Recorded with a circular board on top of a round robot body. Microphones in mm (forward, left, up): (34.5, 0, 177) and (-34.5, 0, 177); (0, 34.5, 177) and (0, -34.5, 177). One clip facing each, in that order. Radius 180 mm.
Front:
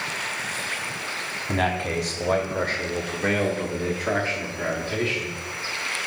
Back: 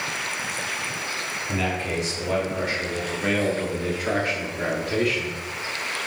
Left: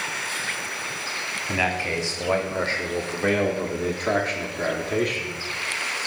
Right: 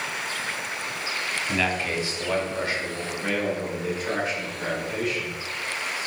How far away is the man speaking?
About 1.4 m.